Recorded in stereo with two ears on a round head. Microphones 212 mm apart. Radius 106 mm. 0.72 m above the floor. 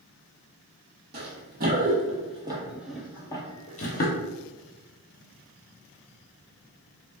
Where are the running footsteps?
45° right (ahead or behind), 1.2 m; by 4.1 s 40° left (ahead or behind), 0.9 m.